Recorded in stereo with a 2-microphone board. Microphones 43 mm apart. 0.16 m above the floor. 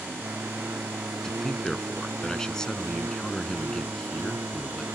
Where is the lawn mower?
75° right (ahead or behind); by 5.0 s 85° right.